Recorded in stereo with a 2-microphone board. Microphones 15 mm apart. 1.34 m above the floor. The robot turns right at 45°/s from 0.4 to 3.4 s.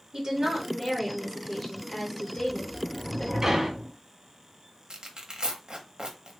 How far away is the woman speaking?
About 1.8 m.